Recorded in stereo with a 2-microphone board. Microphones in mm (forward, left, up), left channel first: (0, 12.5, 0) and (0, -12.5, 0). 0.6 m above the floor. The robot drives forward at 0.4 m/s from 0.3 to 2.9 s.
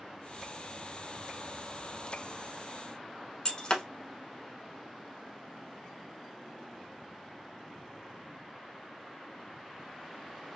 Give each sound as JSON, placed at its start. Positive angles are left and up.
{"t": 3.5, "sound": "breaking glass", "side_deg": 30, "distance_m": 0.7}